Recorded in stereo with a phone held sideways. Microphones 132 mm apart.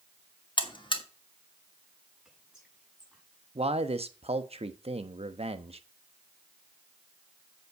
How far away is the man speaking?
About 1.0 m.